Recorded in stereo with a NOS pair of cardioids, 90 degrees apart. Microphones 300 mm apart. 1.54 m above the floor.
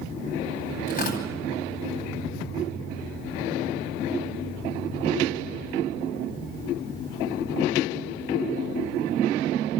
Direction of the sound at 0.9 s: 30° left.